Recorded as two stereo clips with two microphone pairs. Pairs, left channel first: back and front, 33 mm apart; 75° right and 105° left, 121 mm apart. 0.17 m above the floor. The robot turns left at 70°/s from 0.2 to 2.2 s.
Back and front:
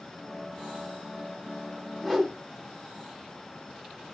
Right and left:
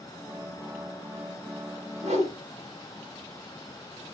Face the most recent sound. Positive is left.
turn(degrees=80)